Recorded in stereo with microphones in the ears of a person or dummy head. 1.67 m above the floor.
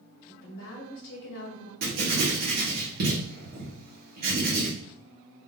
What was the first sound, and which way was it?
A woman speaking, 65° left (ahead or behind).